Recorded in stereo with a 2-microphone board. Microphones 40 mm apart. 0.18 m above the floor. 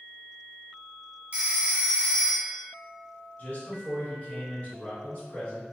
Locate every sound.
1.3 s a phone ringing: 35° right (ahead or behind), 0.8 m
3.4 s a man speaking: 35° left (ahead or behind), 1.9 m